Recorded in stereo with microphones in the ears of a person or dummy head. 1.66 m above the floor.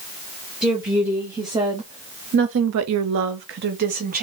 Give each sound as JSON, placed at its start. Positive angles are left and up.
{"t": 0.6, "sound": "a woman speaking", "side_deg": -5, "distance_m": 1.3}